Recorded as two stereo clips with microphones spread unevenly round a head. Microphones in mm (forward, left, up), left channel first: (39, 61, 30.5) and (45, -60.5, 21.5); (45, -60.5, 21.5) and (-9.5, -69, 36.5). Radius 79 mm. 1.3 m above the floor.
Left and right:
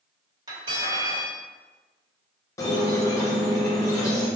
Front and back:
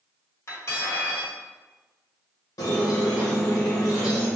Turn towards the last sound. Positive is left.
turn(degrees=30)